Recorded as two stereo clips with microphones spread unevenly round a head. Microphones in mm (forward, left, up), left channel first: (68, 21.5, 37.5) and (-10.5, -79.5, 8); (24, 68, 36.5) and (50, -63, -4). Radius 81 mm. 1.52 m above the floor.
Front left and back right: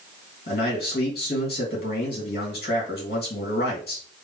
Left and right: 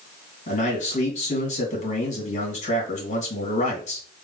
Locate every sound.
0.5 s a man speaking: 70° left, 2.5 m